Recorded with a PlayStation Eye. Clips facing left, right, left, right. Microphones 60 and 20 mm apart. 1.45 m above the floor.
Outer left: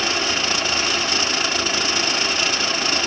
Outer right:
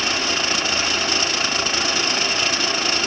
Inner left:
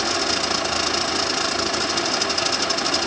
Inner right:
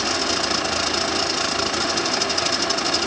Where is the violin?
No violin in this recording.